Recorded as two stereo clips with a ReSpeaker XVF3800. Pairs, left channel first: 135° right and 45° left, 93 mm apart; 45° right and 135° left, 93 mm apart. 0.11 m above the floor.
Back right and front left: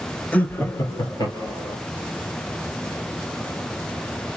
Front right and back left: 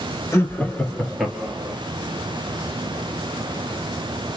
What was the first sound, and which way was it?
Laughter, 70° right.